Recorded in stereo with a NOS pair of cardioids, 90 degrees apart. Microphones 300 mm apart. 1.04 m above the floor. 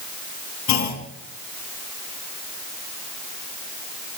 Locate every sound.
0.7 s a clunk: 65° left, 3.5 m